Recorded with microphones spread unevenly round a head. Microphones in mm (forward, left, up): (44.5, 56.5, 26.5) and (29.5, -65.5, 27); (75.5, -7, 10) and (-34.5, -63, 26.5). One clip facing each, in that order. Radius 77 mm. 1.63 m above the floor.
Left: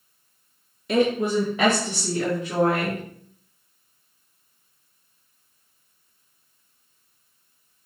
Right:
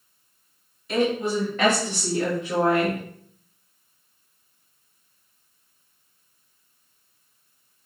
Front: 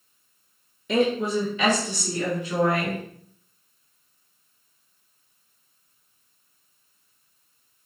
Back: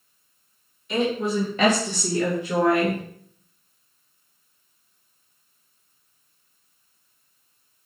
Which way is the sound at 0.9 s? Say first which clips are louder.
Left 2 dB, front 1 dB; 65° left.